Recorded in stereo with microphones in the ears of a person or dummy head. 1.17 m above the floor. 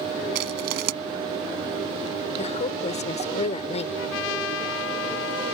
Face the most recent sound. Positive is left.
turn(degrees=70)  # may be behind; listen again after turning